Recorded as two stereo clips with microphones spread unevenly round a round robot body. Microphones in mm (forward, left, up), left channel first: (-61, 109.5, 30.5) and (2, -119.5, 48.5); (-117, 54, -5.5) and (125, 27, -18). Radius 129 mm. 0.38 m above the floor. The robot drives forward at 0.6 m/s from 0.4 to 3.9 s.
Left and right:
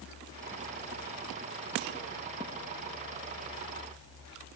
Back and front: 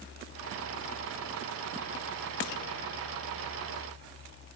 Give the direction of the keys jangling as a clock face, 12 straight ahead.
No keys jangling in this recording.